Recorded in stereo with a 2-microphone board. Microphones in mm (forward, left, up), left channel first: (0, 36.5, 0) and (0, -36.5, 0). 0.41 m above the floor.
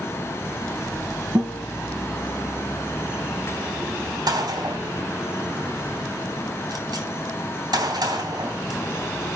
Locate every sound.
1.4 s a guitar: 50° right (ahead or behind), 5 m
4.3 s a gunshot: 65° right (ahead or behind), 3 m